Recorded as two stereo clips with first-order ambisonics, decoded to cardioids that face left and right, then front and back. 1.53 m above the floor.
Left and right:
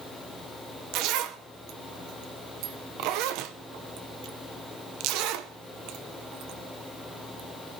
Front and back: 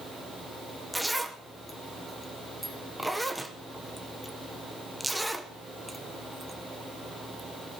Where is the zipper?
90° right, 0.7 m.